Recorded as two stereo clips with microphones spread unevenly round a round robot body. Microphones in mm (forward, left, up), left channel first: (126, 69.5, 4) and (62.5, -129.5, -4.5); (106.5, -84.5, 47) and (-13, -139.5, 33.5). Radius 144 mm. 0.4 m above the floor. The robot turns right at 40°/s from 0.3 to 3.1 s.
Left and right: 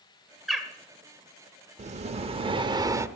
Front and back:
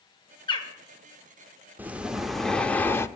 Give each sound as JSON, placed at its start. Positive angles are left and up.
{"t": 0.5, "sound": "a bird", "azimuth_deg": -20, "distance_m": 1.8}
{"t": 1.8, "sound": "breathing", "azimuth_deg": -95, "distance_m": 0.6}